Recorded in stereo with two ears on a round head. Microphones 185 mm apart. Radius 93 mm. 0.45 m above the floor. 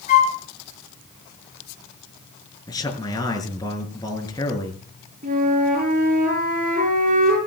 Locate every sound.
0.1 s a flute: 40° left (ahead or behind), 5.5 m
2.7 s a man speaking: 20° left (ahead or behind), 5.5 m
5.2 s a flute: 40° right (ahead or behind), 8 m